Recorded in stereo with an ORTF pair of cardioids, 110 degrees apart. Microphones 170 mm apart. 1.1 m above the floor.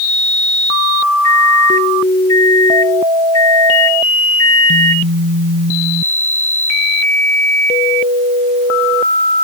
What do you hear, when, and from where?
1.2 s a microwave: 25° left